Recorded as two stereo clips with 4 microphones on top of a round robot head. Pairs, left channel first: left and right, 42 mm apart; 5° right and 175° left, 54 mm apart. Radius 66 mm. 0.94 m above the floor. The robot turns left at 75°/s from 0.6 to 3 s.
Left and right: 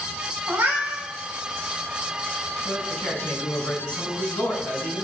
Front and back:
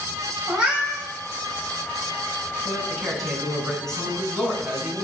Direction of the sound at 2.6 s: 110° left.